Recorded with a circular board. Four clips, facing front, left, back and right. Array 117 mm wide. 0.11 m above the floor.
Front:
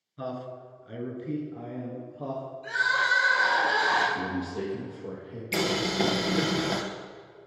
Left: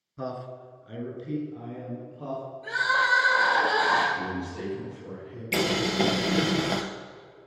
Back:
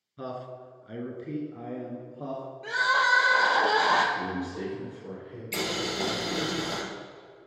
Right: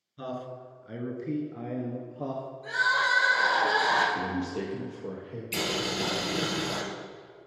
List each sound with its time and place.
0.2 s a man speaking: 90° left, 1.2 m; by 2.4 s 95° right, 2.0 m
2.6 s crying: 170° left, 1.6 m
4.2 s a man speaking: 75° right, 3 m
5.5 s boiling: 65° left, 0.8 m